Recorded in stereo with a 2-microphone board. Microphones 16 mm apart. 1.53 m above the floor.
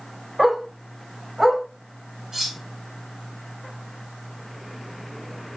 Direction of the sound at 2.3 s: 35° right (ahead or behind).